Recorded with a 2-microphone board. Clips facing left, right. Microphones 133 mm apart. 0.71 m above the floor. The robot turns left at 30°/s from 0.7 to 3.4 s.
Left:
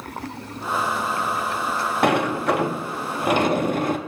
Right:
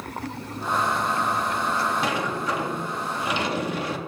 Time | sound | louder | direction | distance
2.0 | a sliding door | left 7 dB | 100° left | 0.6 m